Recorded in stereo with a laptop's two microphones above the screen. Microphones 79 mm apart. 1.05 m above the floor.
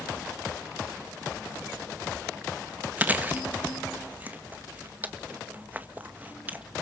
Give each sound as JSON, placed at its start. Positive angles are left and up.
{"t": 3.0, "sound": "chewing", "side_deg": -25, "distance_m": 1.7}